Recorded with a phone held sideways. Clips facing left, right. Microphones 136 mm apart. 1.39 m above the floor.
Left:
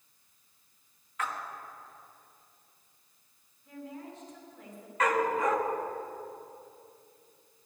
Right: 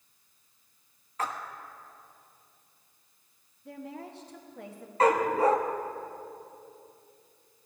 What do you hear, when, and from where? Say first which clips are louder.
1.2 s a splash: right 2 dB; 35° right (ahead or behind), 1.1 m
3.6 s a woman speaking: right 2 dB; 75° right (ahead or behind), 1.7 m
5.0 s a dog barking: right 4 dB; 35° right (ahead or behind), 0.9 m